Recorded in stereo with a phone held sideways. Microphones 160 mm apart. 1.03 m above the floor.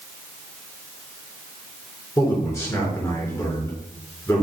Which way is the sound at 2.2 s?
10° left (ahead or behind).